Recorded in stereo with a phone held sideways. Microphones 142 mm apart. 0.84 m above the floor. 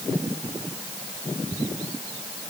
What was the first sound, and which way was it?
Only background noise.